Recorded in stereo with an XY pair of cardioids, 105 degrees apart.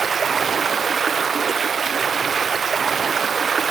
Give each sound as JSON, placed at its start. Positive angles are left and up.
{"t": 0.0, "sound": "running water", "azimuth_deg": -35, "distance_m": 0.7}